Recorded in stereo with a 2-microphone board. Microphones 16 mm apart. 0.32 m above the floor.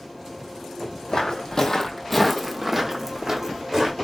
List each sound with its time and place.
1.1 s footsteps: 60° left (ahead or behind), 0.7 m; by 4.0 s 45° right (ahead or behind), 1.2 m